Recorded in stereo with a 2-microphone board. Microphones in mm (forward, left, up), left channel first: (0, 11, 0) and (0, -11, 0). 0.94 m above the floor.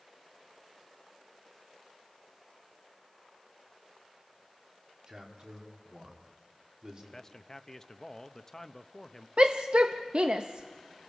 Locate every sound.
5.1 s a man speaking: 45° right (ahead or behind), 3 m
7.1 s a man speaking: 15° left (ahead or behind), 0.7 m
9.4 s a shout: 50° right (ahead or behind), 0.6 m